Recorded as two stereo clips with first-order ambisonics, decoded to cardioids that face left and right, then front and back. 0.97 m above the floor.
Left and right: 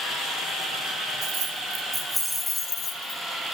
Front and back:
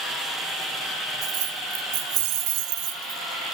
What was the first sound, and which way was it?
Keys jangling, 145° right.